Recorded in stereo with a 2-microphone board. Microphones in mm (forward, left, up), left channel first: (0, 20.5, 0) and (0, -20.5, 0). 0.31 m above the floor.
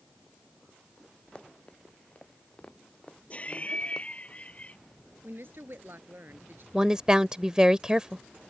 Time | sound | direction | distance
1.4 | running footsteps | 25° left (ahead or behind) | ?
3.3 | laughter | 30° left (ahead or behind) | ?
5.2 | a woman speaking | 60° right (ahead or behind) | ?
6.7 | a woman speaking | 20° right (ahead or behind) | ?